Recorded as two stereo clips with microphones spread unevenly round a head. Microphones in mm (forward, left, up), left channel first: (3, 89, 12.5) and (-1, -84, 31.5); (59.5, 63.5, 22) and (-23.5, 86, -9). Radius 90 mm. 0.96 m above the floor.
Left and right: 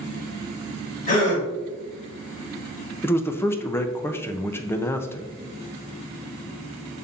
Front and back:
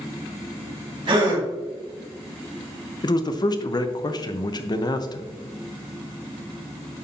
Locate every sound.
1.1 s a gasp: 135° left, 3 m
3.0 s a man speaking: 25° left, 0.7 m